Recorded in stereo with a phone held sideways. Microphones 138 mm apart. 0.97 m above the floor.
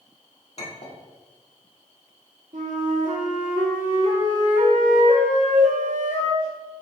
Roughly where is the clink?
Left.